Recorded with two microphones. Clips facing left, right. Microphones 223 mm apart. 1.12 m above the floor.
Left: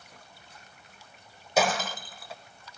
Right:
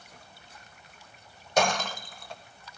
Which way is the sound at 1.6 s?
5° left (ahead or behind).